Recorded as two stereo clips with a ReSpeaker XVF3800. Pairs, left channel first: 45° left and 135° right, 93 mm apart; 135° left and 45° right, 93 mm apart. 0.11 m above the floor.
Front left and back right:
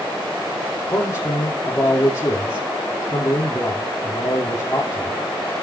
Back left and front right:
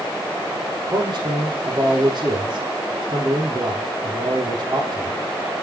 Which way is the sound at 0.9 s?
5° right.